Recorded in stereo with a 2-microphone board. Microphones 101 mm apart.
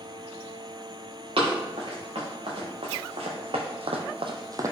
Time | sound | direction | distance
1.4 | running footsteps | 65° right (ahead or behind) | 1.9 m